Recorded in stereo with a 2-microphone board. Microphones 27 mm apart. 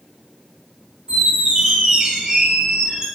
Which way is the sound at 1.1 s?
30° right (ahead or behind).